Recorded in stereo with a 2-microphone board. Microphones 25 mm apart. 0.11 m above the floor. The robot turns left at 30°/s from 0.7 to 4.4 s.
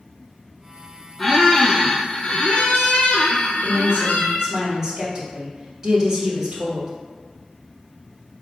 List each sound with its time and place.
1.2 s a squeak: 175° left, 0.7 m; by 4.5 s 80° left, 0.7 m
3.6 s a woman speaking: 35° right (ahead or behind), 1.6 m; by 6.9 s 20° right (ahead or behind), 1.6 m